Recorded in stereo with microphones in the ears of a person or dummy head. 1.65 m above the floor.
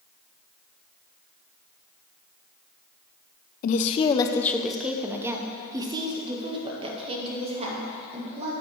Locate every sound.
3.6 s a woman speaking: 45° left (ahead or behind), 0.6 m; by 8.5 s 35° right (ahead or behind), 2.5 m